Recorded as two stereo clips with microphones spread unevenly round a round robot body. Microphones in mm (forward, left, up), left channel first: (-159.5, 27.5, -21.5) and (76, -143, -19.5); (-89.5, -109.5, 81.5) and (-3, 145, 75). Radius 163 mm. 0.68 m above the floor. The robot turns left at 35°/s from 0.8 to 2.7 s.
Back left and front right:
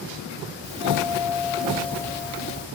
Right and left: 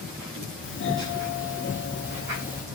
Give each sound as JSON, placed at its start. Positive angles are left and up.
{"t": 0.6, "sound": "a doorbell", "azimuth_deg": -95, "distance_m": 1.9}